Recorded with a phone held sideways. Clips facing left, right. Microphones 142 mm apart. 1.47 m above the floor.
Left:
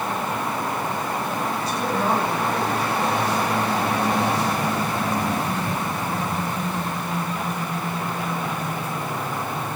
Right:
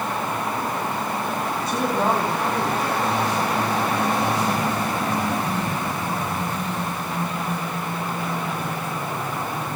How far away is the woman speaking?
About 8 m.